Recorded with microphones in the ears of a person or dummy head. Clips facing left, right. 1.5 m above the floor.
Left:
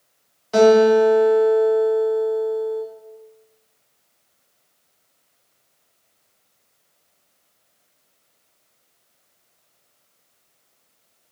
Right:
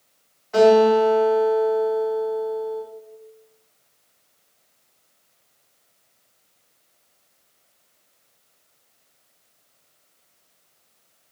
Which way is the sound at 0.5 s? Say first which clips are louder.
Left 2 dB; 50° left (ahead or behind).